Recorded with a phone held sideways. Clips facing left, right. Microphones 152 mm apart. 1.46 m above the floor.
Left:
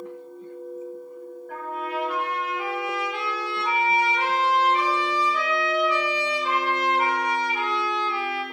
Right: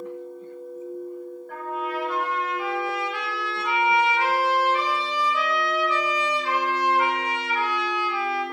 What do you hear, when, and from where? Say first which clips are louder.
1.5 s a trumpet: right 1 dB; 15° left (ahead or behind), 1.5 m